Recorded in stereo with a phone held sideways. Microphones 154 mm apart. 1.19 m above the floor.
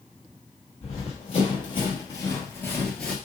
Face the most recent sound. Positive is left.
turn(degrees=5)  # may be behind; listen again after turning